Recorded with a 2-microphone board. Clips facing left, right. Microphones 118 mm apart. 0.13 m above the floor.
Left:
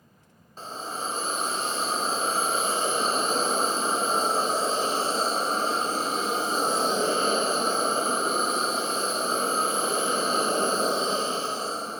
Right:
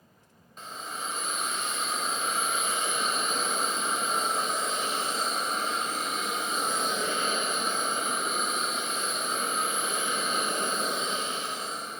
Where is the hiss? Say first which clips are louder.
Left 4 dB; 30° left (ahead or behind).